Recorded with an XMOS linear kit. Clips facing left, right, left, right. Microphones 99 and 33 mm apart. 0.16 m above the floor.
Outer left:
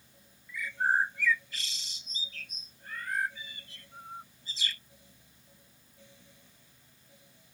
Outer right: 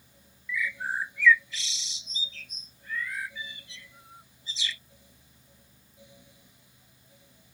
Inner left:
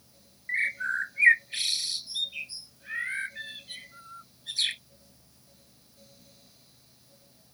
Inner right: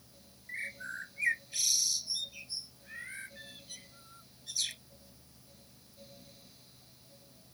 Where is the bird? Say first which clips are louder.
Outer left 3 dB, inner left 12 dB; 50° left (ahead or behind).